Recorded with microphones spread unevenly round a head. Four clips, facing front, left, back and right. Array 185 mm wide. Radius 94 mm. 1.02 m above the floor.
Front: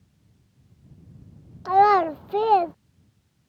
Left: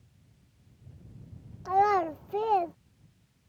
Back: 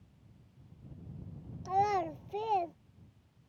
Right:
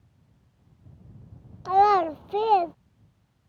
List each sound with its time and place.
1.6 s a child speaking: 10° right